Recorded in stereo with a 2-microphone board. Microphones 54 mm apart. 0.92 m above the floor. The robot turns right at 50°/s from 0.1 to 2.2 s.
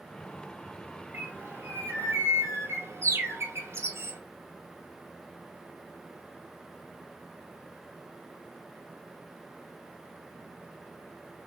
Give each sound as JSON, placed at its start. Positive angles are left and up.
{"t": 1.1, "sound": "a bird", "azimuth_deg": -135, "distance_m": 0.8}